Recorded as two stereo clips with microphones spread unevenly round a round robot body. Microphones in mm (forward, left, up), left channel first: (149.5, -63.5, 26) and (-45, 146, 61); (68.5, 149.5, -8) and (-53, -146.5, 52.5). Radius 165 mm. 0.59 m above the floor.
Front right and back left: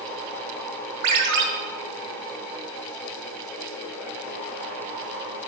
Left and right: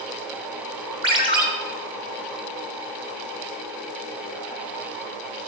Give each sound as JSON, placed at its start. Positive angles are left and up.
{"t": 1.0, "sound": "a ringtone", "azimuth_deg": 170, "distance_m": 1.0}